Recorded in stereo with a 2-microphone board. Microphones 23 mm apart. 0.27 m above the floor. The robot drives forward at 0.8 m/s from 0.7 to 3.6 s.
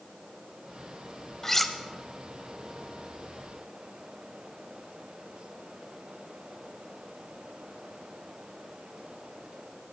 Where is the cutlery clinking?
20° left (ahead or behind), 0.6 m; by 1.8 s 15° left (ahead or behind), 0.7 m.